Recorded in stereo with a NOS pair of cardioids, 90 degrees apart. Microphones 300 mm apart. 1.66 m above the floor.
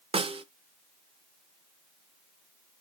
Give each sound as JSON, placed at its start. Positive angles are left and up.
{"t": 0.1, "sound": "a snare drum", "azimuth_deg": -20, "distance_m": 1.0}